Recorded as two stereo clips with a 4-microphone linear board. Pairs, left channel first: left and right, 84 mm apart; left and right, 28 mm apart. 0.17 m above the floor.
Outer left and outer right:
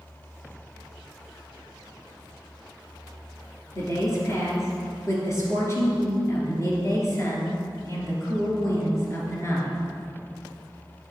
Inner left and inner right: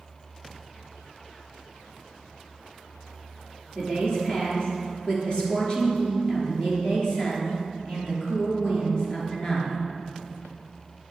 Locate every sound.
3.8 s a woman speaking: 30° left (ahead or behind), 3 m